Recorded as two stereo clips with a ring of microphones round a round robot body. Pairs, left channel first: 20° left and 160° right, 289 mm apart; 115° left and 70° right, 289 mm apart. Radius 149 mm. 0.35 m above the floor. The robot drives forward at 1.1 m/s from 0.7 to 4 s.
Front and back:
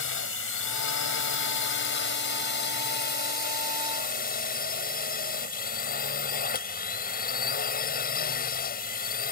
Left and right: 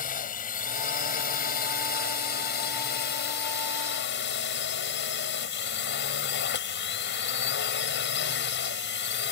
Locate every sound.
0.0 s a drone: 55° left; by 9.3 s 75° left